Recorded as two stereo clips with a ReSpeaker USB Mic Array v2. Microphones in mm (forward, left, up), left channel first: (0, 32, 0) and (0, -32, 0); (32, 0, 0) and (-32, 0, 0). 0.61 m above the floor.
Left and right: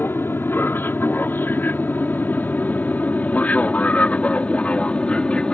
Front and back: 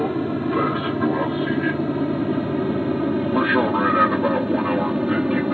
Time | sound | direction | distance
0.0 | an aircraft | 90° left | ?